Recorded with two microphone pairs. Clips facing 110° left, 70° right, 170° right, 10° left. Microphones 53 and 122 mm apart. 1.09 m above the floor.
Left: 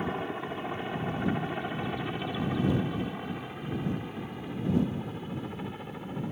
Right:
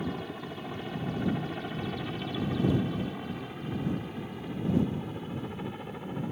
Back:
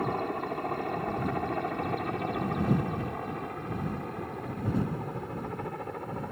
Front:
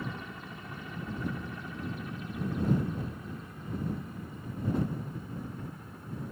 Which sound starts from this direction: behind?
A helicopter, at 0.0 s.